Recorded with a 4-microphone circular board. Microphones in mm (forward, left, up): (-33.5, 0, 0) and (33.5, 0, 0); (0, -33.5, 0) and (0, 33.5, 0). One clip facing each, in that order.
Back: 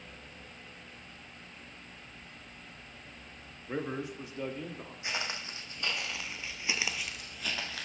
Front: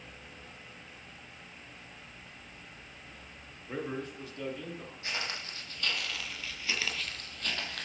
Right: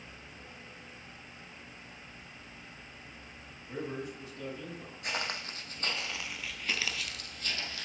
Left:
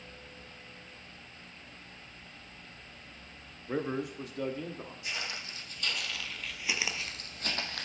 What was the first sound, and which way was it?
A man speaking, 105° left.